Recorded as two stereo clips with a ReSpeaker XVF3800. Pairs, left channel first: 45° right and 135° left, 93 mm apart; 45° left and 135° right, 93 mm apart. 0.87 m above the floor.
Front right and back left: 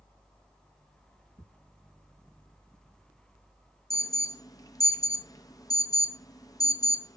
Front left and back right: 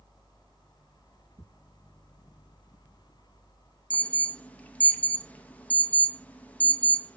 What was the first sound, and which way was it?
Ticking, 60° right.